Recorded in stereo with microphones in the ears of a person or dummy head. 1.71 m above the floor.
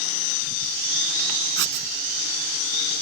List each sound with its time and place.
1.6 s writing: 70° right (ahead or behind)